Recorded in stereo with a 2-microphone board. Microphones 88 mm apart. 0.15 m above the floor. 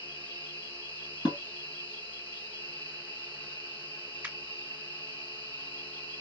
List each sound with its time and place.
0.0 s an insect: 80° left, 2 m
1.2 s dishes clattering: 65° left (ahead or behind), 2.5 m
4.2 s a finger snap: 15° right (ahead or behind), 1.6 m